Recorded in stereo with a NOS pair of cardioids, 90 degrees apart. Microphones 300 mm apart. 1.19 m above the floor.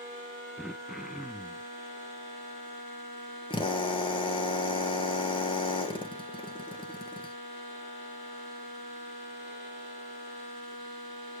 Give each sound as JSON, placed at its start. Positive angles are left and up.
{"t": 0.6, "sound": "throat clearing", "azimuth_deg": 0, "distance_m": 0.6}
{"t": 3.5, "sound": "a drill", "azimuth_deg": 15, "distance_m": 1.4}